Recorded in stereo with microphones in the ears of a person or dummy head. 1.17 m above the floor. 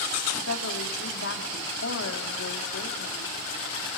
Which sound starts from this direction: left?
A woman speaking, at 0.4 s.